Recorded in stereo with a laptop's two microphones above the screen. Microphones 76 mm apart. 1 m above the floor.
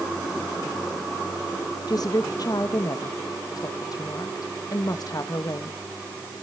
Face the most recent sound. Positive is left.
turn(degrees=55)  # may be behind; listen again after turning